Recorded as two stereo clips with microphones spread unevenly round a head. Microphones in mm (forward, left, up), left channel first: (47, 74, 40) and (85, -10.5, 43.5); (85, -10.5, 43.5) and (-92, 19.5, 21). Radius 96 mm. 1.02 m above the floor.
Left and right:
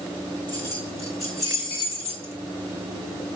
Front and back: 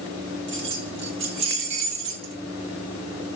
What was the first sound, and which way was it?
Keys jangling, 165° right.